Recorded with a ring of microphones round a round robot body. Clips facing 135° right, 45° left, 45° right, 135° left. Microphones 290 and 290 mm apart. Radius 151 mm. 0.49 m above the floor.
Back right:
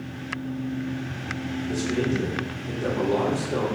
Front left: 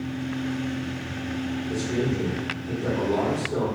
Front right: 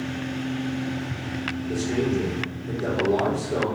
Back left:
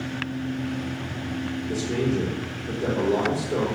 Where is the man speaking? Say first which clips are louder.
Back right 2 dB, front right 2 dB; 150° right, 1.9 m.